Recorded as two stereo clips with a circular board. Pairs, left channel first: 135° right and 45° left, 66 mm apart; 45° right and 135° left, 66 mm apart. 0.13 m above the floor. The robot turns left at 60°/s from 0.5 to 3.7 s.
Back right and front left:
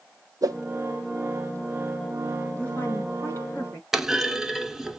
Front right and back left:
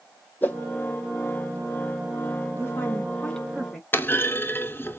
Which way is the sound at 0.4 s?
20° left.